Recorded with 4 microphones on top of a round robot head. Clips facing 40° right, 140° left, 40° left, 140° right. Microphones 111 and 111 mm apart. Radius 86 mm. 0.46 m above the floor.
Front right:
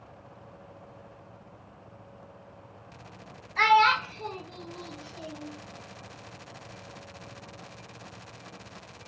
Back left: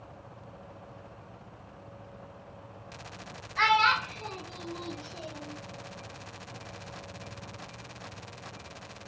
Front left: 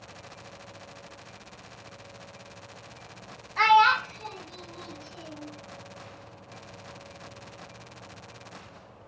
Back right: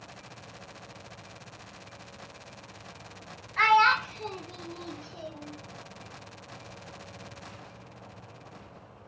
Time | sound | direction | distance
3.6 | a child speaking | 15° right | 0.7 m